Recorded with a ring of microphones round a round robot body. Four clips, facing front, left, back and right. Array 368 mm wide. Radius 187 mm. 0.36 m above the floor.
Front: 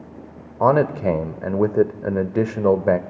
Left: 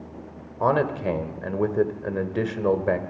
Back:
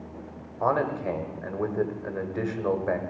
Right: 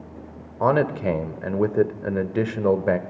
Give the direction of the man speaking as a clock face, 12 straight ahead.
1 o'clock.